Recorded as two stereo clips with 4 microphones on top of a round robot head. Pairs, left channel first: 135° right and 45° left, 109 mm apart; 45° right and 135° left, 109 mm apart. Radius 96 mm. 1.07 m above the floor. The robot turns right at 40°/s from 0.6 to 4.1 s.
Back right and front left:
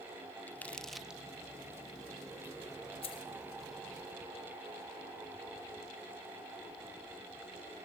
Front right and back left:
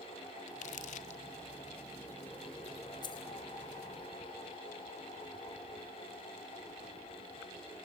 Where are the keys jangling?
100° right, 2 m; by 3.3 s 85° right, 2 m.